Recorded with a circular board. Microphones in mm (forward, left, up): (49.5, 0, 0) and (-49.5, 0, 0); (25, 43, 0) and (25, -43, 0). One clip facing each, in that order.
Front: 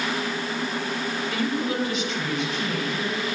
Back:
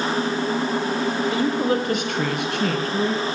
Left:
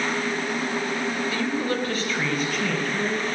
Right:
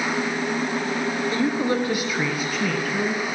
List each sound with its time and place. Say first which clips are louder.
1.3 s a woman speaking: back 3 dB, right 3 dB; 135° right, 1.4 m; by 3.2 s 175° left, 3.5 m